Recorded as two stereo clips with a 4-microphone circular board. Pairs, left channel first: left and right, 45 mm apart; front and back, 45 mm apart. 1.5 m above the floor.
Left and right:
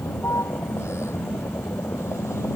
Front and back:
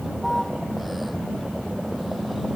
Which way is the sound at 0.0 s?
95° left.